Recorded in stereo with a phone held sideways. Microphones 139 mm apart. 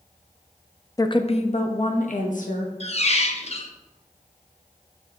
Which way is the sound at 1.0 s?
25° left (ahead or behind).